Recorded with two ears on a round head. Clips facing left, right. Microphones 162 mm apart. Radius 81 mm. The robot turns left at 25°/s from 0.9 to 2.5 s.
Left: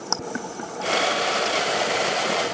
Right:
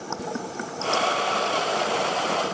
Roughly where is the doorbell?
No doorbell in this recording.